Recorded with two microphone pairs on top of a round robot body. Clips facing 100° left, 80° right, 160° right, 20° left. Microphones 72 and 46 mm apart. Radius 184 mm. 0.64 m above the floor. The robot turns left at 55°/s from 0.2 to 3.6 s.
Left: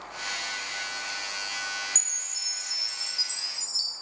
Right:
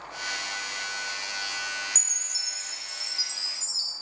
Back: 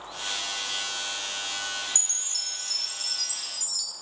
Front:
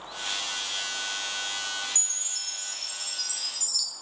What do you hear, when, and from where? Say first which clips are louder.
1.9 s a chime: right 1 dB, back 1 dB; 135° right, 1.7 m; by 3.9 s 135° left, 1.7 m